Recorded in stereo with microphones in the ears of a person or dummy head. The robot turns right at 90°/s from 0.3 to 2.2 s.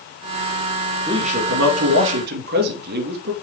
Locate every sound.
1.1 s a man speaking: 165° right, 2.5 m; by 3.3 s 60° right, 2.5 m